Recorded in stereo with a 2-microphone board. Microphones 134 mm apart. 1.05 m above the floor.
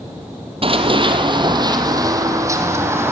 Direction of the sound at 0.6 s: 45° right (ahead or behind).